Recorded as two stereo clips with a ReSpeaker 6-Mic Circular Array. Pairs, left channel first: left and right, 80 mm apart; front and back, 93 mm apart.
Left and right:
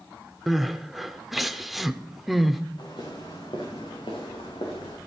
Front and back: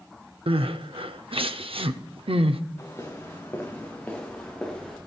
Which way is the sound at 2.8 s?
60° left.